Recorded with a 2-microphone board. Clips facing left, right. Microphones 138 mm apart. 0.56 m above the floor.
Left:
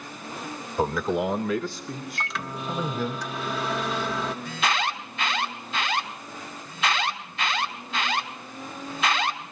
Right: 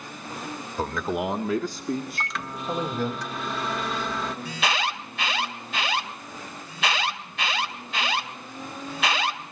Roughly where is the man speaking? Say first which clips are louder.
Left 3 dB; centre.